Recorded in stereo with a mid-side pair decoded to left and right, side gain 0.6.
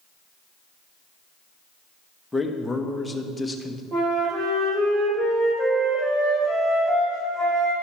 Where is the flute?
45° right, 3.5 m.